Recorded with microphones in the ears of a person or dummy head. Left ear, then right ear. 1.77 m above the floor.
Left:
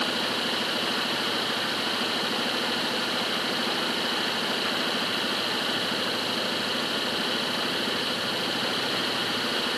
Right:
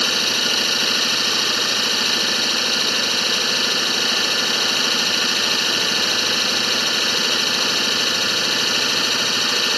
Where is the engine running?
80° right.